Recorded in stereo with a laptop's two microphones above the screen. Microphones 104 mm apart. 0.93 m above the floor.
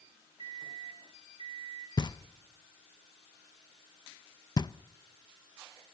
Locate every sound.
0.4 s a microwave: 55° right (ahead or behind), 1.1 m
2.0 s knocking: 45° left (ahead or behind), 0.6 m